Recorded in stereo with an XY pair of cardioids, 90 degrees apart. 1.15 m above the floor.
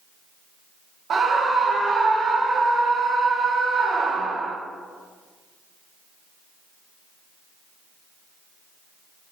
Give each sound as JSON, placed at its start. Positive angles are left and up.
{"t": 1.1, "sound": "a scream", "azimuth_deg": -55, "distance_m": 0.7}